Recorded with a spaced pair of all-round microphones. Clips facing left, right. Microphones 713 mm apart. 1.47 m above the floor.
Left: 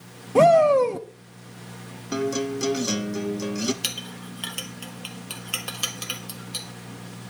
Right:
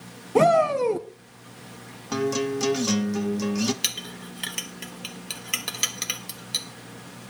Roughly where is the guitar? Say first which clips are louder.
Right 1 dB; right.